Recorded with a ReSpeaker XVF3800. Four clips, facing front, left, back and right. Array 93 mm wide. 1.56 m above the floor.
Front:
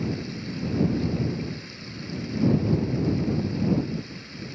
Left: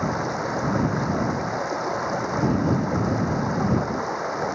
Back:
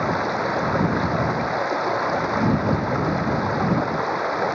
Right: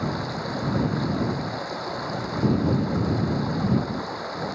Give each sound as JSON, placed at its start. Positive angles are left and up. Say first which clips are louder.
{"t": 0.0, "sound": "running water", "louder": "left 3 dB, back 9 dB", "azimuth_deg": 160}